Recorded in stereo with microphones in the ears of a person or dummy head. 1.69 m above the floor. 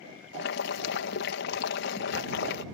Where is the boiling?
60° left (ahead or behind).